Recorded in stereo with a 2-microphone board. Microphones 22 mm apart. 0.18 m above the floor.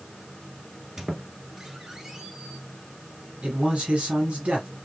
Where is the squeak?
25° right (ahead or behind), 1.4 m.